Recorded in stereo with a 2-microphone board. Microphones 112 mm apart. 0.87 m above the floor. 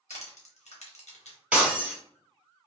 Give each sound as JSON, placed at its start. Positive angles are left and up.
{"t": 0.1, "sound": "crushing", "side_deg": 80, "distance_m": 1.0}
{"t": 1.5, "sound": "breaking glass", "side_deg": -10, "distance_m": 1.3}